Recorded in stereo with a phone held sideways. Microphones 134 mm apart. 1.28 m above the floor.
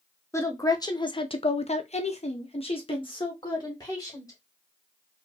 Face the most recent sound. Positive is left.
turn(degrees=30)  # may be behind; listen again after turning